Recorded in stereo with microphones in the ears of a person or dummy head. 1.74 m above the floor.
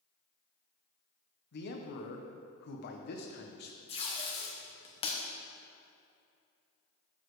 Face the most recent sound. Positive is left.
turn(degrees=30)  # may be behind; listen again after turning